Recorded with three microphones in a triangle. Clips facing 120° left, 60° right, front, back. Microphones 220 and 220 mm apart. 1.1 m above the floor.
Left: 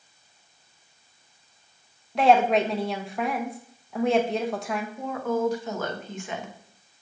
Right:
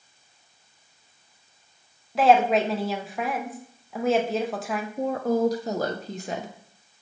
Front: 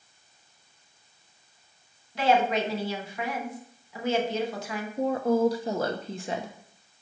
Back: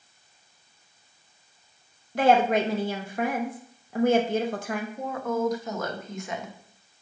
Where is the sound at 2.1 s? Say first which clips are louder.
Even, back 3 dB; 150° right, 0.8 m.